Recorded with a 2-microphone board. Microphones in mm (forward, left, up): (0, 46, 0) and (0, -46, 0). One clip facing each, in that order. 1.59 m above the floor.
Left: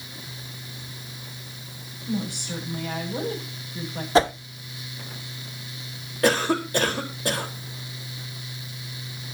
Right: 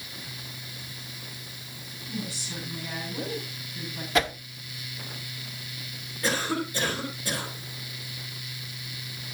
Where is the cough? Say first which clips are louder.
Left 7 dB; 70° left (ahead or behind), 4.5 m.